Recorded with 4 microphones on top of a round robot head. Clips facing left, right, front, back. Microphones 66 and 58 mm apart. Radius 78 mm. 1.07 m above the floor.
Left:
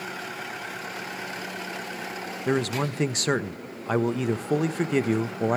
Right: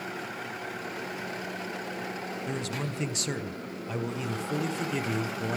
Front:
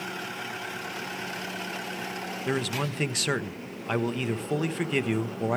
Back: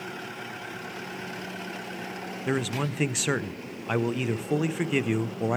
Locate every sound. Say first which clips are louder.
2.5 s a man speaking: left 12 dB, back 1 dB; 100° left, 0.7 m